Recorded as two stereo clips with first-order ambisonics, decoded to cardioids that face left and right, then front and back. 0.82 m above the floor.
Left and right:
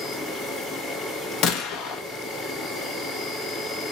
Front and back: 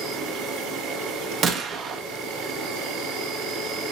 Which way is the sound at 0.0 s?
Straight behind.